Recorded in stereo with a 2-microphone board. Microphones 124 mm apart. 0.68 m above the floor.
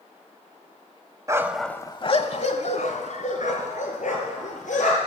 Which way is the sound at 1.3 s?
25° right (ahead or behind).